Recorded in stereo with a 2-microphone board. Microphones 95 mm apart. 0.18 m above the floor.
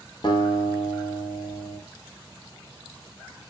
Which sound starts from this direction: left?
A guitar, at 0.2 s.